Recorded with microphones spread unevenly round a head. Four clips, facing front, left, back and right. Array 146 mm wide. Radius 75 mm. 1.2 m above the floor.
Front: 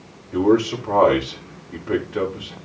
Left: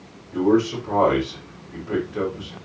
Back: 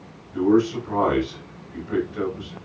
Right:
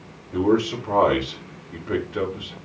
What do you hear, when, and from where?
0.3 s a man speaking: 15° right, 4.5 m